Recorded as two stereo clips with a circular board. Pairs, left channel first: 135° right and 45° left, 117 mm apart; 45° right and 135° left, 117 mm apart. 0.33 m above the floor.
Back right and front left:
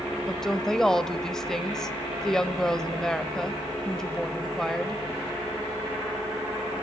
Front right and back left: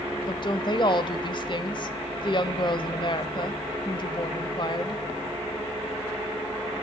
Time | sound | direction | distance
0.3 | a woman speaking | 50° right | 1.1 m